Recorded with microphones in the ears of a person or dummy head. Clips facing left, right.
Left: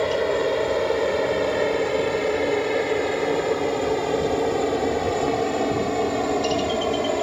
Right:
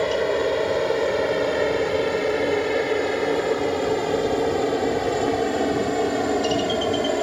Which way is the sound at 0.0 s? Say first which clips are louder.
Even; centre (ahead or behind).